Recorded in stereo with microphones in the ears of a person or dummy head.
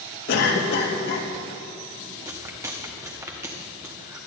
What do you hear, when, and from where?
0.3 s a cough: 55° left (ahead or behind), 1.7 m
2.2 s chewing: 15° right (ahead or behind), 1.1 m